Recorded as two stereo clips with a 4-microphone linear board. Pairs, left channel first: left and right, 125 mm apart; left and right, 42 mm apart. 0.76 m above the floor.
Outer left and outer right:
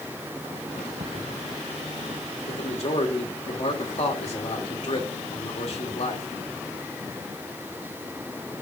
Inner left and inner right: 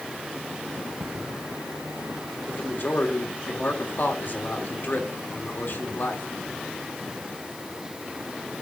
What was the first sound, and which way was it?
Footsteps, 75° right (ahead or behind).